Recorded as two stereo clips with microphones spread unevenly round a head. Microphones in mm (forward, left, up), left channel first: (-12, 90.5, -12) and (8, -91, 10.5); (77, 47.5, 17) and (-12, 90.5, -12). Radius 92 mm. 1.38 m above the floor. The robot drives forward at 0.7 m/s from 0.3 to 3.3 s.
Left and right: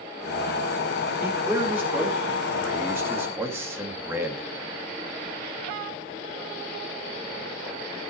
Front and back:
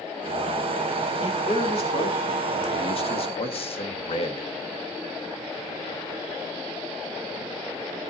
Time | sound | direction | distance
1.2 | a man speaking | 5° right | 3.5 m